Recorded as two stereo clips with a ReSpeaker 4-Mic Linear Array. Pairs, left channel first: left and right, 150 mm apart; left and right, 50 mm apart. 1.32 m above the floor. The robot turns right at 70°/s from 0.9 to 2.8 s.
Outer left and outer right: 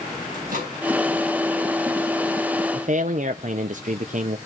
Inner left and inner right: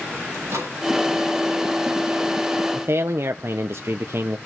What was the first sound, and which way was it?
A microwave, 65° right (ahead or behind).